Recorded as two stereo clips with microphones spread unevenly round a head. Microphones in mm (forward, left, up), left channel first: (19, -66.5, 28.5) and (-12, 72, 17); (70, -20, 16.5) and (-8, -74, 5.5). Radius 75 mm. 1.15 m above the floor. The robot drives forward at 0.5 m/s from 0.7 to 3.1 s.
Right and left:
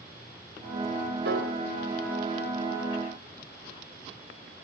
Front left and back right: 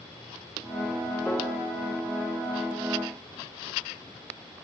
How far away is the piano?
About 3.5 m.